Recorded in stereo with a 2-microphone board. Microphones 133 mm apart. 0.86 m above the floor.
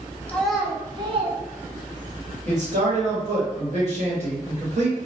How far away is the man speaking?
About 1.5 m.